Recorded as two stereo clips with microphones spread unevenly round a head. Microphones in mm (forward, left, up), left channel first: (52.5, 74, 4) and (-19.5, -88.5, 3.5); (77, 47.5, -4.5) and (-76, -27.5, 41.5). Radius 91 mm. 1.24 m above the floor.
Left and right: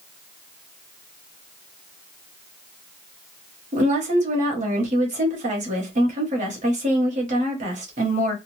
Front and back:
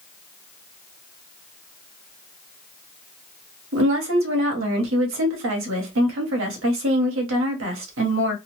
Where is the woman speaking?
165° right, 1.1 m.